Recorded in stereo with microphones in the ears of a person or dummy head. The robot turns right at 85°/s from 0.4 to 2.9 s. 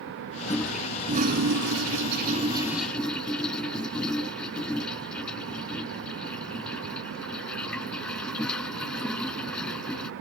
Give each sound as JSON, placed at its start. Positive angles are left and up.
{"t": 0.5, "sound": "a toilet flushing", "side_deg": 25}